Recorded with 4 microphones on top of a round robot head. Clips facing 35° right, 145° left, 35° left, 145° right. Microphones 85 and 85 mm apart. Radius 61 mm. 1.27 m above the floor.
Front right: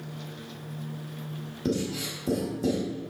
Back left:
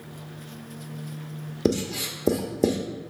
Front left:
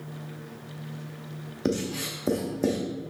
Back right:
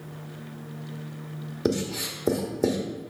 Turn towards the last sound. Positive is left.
turn(degrees=135)